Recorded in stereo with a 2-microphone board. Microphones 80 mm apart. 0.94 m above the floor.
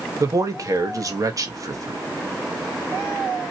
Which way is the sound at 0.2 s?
45° right (ahead or behind).